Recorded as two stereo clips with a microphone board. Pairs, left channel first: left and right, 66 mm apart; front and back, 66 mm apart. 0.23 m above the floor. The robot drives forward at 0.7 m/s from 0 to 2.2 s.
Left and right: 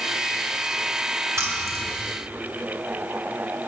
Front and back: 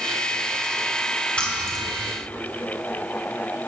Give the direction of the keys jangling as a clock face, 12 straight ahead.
2 o'clock.